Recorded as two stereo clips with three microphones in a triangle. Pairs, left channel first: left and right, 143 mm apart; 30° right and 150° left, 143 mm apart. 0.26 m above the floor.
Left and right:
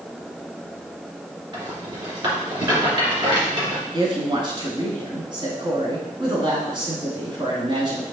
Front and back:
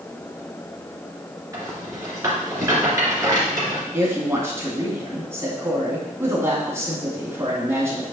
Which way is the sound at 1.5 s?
145° right.